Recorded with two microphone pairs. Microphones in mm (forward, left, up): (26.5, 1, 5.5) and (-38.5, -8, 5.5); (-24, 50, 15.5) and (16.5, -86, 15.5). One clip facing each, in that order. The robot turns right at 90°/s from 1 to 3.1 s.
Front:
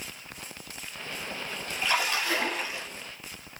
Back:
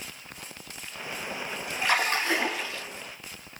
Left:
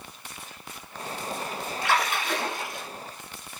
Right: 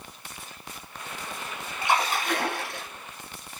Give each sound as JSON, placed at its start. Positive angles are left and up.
{"t": 1.8, "sound": "a splash", "azimuth_deg": -150, "distance_m": 1.5}